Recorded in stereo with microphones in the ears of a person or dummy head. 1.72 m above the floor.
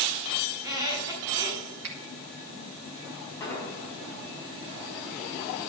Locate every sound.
0.5 s a squeak: 20° right (ahead or behind), 3.5 m
1.8 s a finger snap: 60° right (ahead or behind), 1.5 m
3.4 s an explosion: 15° left (ahead or behind), 5.5 m